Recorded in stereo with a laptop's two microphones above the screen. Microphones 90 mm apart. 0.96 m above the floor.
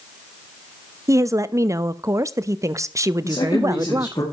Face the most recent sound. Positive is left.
turn(degrees=50)  # may be behind; listen again after turning